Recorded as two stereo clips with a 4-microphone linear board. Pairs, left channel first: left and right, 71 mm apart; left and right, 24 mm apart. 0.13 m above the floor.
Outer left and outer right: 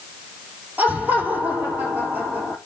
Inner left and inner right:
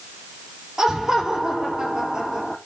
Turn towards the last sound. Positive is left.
turn(degrees=-30)  # may be behind; listen again after turning